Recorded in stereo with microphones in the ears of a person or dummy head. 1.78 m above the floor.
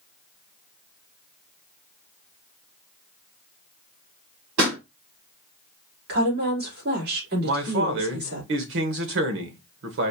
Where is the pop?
75° right (ahead or behind), 3.5 m.